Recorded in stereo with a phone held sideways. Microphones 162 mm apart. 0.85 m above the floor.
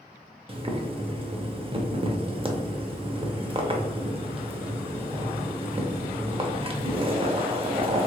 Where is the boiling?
35° right (ahead or behind), 0.6 m.